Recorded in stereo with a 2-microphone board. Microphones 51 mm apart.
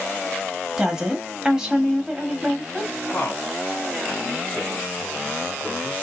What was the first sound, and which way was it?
A woman speaking, 15° right (ahead or behind).